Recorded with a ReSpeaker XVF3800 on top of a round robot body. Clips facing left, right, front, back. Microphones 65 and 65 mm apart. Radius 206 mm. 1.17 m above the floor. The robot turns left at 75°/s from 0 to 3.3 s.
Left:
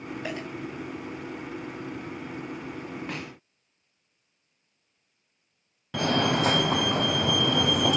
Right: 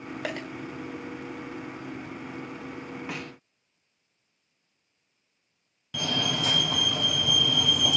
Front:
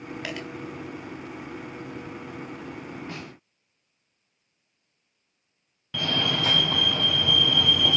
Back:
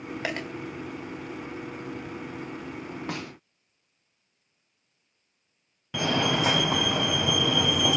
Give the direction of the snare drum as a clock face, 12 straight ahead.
6 o'clock.